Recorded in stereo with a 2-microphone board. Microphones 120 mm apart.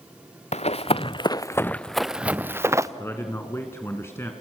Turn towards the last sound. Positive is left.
turn(degrees=20)  # may be behind; listen again after turning